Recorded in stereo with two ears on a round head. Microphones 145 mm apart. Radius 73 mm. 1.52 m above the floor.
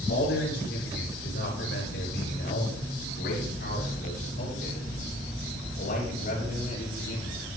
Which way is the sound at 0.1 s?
85° left.